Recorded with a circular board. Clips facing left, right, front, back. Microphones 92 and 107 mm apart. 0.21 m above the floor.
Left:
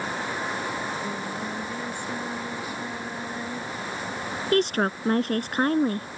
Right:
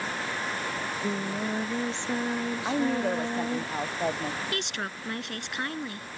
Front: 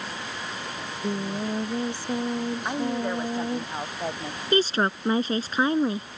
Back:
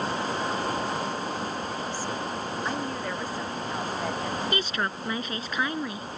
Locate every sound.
0.8 s singing: 25° right
2.6 s a woman speaking: 70° right
4.5 s a woman speaking: 55° left